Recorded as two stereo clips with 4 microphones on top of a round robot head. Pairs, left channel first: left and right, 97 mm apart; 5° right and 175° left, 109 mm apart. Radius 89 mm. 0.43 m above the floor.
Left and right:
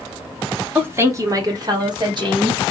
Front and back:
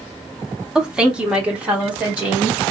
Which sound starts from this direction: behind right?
A woman speaking, at 0.8 s.